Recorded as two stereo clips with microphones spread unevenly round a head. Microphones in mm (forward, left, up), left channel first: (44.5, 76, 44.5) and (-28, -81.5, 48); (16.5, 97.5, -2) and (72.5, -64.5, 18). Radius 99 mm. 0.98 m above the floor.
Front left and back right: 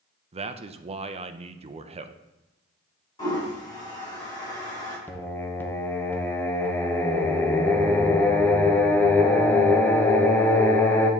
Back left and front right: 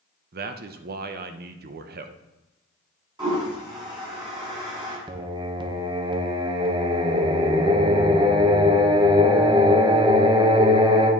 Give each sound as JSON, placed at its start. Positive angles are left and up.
{"t": 0.3, "sound": "a man speaking", "azimuth_deg": -75, "distance_m": 0.6}
{"t": 3.2, "sound": "a toilet flushing", "azimuth_deg": -5, "distance_m": 4.0}
{"t": 5.1, "sound": "singing", "azimuth_deg": -10, "distance_m": 0.8}